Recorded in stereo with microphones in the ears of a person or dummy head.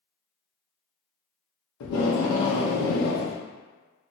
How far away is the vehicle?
No vehicle in this recording.